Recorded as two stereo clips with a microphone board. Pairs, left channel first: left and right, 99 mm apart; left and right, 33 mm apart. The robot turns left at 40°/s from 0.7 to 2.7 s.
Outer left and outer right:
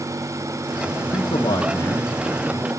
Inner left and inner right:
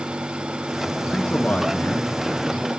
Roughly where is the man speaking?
Left.